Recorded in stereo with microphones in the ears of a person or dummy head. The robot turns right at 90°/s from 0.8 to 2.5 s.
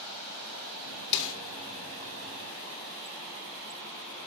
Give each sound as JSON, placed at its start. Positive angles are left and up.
{"t": 1.1, "sound": "a snare drum", "side_deg": 50, "distance_m": 1.4}